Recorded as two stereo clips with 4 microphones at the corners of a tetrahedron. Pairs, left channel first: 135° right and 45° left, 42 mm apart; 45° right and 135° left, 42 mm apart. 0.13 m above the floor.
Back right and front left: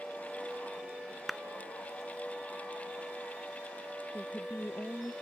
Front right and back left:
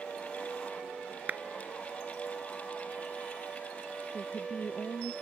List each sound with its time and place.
1.3 s a clap: 130° left
4.1 s a woman speaking: 105° right